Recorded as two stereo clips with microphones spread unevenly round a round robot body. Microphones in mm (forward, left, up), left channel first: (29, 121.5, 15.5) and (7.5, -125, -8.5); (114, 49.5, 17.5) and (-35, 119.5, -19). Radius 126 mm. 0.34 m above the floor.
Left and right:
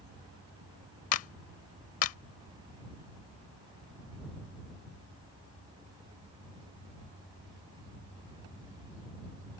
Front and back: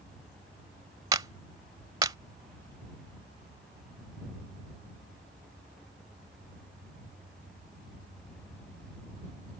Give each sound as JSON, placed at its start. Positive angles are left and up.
{"t": 1.1, "sound": "a clap", "azimuth_deg": 100}